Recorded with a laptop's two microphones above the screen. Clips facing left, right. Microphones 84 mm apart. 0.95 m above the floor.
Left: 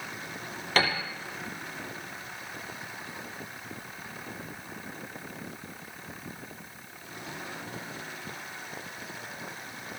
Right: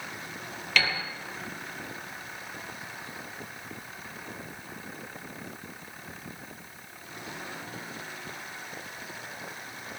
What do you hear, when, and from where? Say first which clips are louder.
0.8 s a piano: left 2 dB; 40° left (ahead or behind), 3.5 m